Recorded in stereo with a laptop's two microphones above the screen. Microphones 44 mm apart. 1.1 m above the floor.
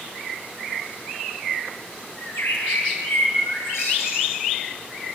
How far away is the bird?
About 7 m.